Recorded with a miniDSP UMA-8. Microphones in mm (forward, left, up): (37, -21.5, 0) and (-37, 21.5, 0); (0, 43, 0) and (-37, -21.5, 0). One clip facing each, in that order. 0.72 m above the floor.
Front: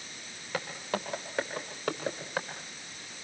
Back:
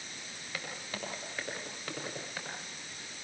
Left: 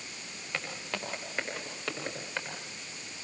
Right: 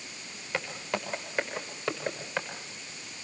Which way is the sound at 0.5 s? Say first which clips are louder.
Front 8 dB, right 5 dB; 40° right.